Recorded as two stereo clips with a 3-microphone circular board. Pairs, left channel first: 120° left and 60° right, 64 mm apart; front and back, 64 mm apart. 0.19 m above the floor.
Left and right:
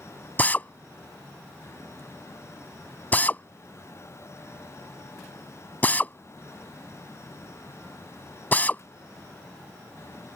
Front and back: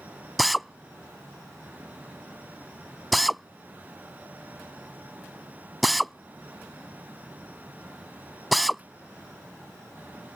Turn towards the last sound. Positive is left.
turn(degrees=90)